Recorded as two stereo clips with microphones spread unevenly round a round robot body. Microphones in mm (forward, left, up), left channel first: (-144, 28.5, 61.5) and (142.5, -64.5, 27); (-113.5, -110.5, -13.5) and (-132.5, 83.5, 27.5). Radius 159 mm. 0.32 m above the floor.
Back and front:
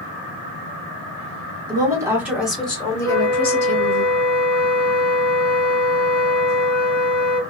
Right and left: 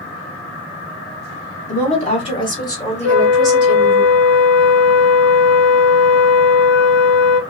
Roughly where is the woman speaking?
Right.